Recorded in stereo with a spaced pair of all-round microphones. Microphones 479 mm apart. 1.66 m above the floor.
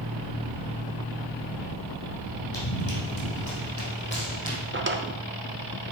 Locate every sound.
2.5 s running footsteps: 50° left (ahead or behind), 3.5 m; by 4.6 s 15° left (ahead or behind), 3.5 m
4.7 s a drawer: 25° right (ahead or behind), 0.7 m